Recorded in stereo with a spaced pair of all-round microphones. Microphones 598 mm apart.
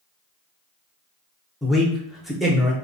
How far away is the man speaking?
About 0.6 m.